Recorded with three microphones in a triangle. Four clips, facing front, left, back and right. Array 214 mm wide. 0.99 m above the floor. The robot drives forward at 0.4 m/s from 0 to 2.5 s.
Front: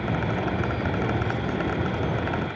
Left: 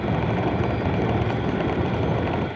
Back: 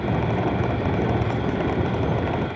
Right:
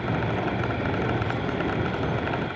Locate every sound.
Only background noise.